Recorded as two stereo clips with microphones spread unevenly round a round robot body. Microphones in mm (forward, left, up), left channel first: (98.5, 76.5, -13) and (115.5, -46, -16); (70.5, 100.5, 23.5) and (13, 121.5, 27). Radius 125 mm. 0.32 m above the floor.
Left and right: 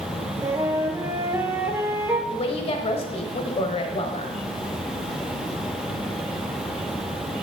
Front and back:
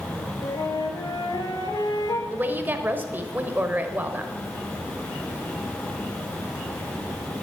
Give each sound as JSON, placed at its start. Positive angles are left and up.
{"t": 0.4, "sound": "a flute", "azimuth_deg": -10, "distance_m": 1.6}
{"t": 2.3, "sound": "a woman speaking", "azimuth_deg": 115, "distance_m": 1.2}